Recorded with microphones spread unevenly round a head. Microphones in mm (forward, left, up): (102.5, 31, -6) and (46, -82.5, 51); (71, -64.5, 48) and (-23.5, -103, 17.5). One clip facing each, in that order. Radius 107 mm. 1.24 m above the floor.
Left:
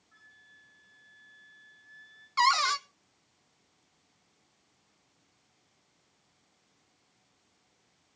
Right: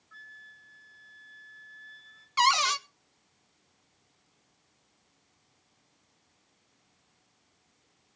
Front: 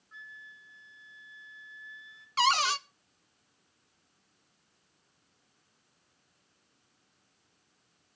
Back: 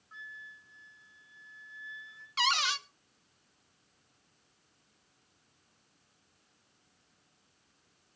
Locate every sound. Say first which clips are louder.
0.1 s a flute: right 9 dB, back 1 dB; 125° right, 1.7 m
2.4 s a cupboard door: right 1 dB, front 5 dB; 20° right, 0.5 m